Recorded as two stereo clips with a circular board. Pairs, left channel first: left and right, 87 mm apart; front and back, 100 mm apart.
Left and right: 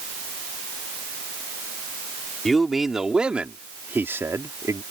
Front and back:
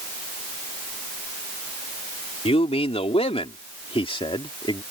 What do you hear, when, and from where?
2.5 s a man speaking: straight ahead; by 4.8 s 40° right